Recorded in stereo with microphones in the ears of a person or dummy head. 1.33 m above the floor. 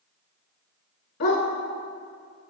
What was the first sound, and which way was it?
A dog barking, 55° left (ahead or behind).